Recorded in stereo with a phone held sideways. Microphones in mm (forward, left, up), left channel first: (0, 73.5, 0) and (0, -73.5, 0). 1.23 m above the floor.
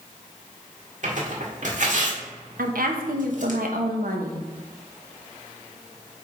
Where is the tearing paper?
60° right (ahead or behind), 1.6 m.